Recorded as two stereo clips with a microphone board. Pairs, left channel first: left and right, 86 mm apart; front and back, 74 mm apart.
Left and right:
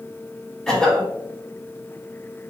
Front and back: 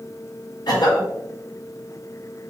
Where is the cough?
5° left, 1.0 m.